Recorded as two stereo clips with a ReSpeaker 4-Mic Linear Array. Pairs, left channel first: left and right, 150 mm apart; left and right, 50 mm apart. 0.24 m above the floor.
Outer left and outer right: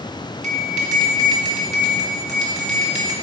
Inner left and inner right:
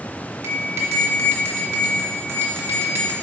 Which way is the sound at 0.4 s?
55° right (ahead or behind).